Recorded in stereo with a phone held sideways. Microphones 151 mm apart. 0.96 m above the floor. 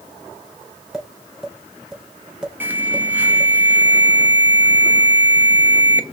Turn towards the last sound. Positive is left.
turn(degrees=-15)  # may be behind; listen again after turning